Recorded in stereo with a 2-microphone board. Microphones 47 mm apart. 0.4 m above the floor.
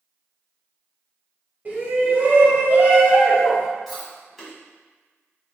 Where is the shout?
40° right (ahead or behind), 1.5 m; by 3.7 s 20° right (ahead or behind), 0.9 m.